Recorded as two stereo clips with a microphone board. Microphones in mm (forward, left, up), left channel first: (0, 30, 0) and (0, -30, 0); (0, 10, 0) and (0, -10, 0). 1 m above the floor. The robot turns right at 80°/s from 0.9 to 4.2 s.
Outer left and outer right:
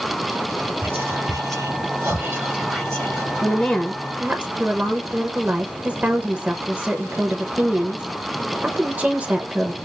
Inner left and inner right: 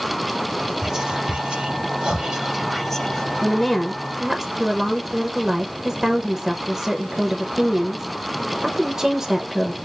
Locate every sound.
0.8 s whispering: 25° right (ahead or behind), 3 m; by 3.3 s 35° left (ahead or behind), 3 m
3.4 s a woman speaking: 145° left, 0.7 m; by 9.8 s 150° right, 0.7 m